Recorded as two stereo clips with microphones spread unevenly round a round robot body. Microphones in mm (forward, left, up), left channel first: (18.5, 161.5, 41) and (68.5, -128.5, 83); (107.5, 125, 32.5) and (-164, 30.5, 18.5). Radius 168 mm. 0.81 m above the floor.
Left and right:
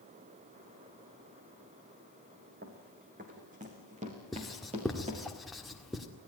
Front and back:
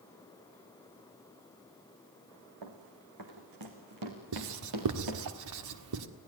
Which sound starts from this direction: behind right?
Running footsteps, at 2.6 s.